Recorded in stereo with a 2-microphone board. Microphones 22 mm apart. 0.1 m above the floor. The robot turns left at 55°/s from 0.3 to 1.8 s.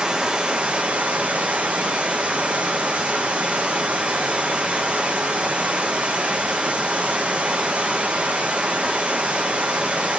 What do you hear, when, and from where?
0.0 s running water: 35° right, 0.7 m; by 10.2 s 115° right, 0.7 m